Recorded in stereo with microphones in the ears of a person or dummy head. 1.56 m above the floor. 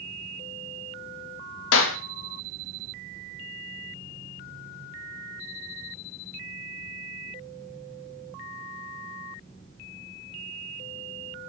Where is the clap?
75° left (ahead or behind), 2 m.